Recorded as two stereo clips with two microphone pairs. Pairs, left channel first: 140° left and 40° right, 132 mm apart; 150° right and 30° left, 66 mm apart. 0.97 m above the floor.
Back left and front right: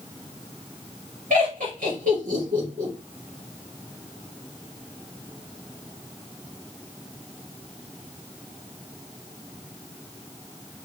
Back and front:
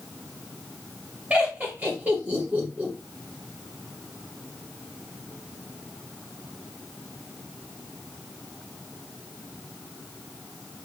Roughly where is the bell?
I don't hear a bell.